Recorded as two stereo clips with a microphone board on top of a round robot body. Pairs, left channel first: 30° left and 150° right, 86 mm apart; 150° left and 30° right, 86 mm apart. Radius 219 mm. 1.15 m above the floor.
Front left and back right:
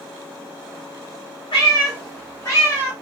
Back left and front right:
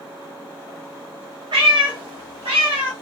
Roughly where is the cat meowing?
Ahead.